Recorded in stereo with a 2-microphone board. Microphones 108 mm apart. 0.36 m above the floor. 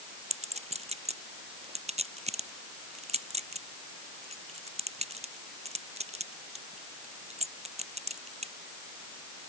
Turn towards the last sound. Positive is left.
turn(degrees=-85)